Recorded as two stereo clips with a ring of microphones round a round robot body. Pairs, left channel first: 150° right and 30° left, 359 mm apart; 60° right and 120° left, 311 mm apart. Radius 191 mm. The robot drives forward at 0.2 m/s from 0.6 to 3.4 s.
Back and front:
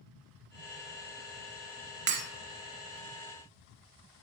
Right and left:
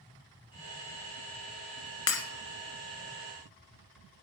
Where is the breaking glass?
25° right, 2 m.